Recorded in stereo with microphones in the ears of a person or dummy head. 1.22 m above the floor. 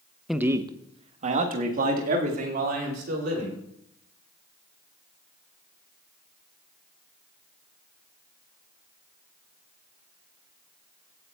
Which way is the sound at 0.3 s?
Centre (ahead or behind).